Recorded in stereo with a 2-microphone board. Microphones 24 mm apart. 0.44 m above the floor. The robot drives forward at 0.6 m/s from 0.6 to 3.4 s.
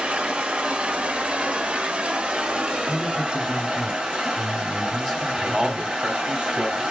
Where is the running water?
50° right (ahead or behind), 1.3 m; by 6.9 s 40° right (ahead or behind), 1.7 m.